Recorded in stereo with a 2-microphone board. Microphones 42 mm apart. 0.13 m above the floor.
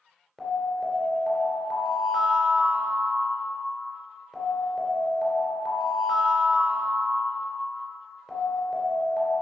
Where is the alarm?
5° right (ahead or behind), 2.5 m.